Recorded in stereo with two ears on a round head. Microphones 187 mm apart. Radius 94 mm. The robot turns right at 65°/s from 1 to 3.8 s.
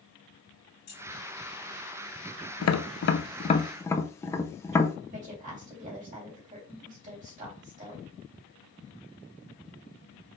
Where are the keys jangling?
75° left (ahead or behind), 2 m.